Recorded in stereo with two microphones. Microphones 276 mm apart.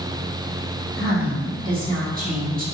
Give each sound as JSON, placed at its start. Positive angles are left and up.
{"t": 1.0, "sound": "a woman speaking", "side_deg": -30, "distance_m": 1.6}